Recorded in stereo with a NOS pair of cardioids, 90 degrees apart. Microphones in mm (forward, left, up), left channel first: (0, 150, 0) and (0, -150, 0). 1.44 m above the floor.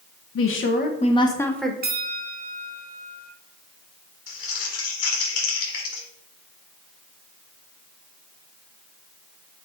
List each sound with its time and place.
0.3 s a woman speaking: 50° left, 1.2 m; by 1.7 s straight ahead, 1.5 m
1.8 s a bell: 30° right, 1.1 m
4.3 s crumpling: 55° left, 4 m